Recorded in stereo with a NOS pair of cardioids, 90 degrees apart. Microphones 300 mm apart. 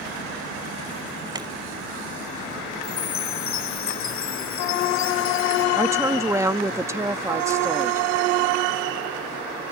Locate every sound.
1.4 s chewing: 15° right
2.8 s a chime: 65° left
5.8 s a woman speaking: 10° right